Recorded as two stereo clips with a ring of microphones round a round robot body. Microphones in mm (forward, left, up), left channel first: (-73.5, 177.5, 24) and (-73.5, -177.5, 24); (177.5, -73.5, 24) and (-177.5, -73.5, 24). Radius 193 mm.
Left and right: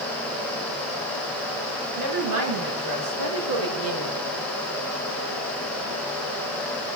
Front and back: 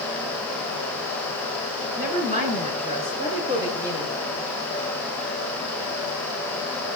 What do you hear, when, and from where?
2.0 s a woman speaking: 115° right, 6.5 m; by 4.2 s 95° right, 6 m